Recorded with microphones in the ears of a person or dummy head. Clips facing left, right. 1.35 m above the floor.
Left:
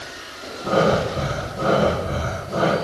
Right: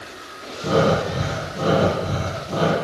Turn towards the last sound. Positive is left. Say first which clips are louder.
# even
turn(degrees=-75)  # may be behind; listen again after turning